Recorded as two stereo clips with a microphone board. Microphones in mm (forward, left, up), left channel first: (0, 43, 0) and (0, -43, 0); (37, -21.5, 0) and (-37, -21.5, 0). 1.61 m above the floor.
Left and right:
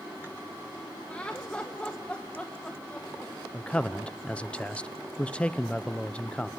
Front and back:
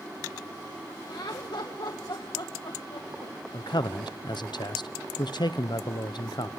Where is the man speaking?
15° left, 1.0 m.